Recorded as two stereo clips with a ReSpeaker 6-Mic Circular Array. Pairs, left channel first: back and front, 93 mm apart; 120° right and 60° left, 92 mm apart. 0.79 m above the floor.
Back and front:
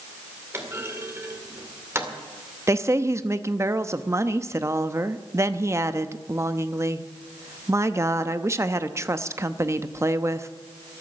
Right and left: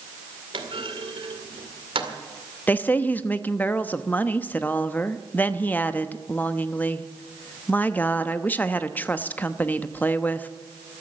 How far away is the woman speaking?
About 0.7 m.